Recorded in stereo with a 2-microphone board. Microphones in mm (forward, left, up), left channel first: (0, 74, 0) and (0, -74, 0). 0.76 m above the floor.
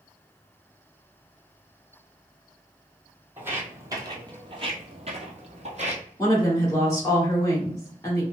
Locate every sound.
3.4 s footsteps: 15° right (ahead or behind), 1.1 m; by 6.0 s 50° right (ahead or behind), 1.2 m
6.2 s a woman speaking: 20° left (ahead or behind), 1.6 m